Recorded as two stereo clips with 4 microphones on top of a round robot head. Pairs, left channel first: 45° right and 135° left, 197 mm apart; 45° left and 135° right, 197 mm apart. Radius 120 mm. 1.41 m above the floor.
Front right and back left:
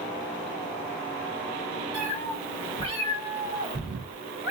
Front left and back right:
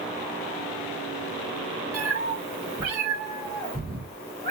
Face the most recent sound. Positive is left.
turn(degrees=60)